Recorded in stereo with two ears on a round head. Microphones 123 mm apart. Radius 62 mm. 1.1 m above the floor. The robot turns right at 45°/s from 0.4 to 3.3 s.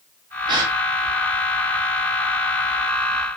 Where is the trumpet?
No trumpet in this recording.